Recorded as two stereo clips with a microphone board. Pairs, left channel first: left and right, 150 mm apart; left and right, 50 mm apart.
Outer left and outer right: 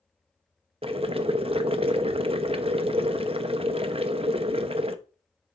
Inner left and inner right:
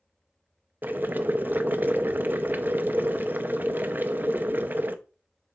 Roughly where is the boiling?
Right.